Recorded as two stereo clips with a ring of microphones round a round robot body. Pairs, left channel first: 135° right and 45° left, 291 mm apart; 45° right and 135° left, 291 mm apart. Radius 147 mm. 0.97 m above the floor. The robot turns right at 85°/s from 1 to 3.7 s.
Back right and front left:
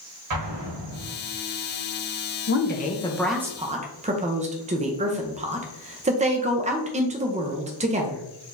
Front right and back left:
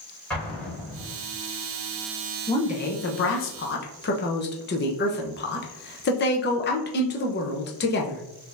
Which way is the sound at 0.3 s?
40° left.